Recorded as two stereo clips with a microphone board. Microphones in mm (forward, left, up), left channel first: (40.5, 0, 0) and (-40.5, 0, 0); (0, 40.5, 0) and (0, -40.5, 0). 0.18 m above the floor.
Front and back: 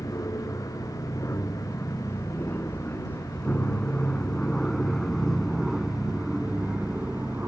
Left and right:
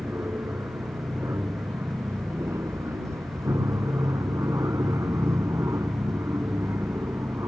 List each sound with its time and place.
0.0 s an aircraft: 40° right; by 7.5 s 120° right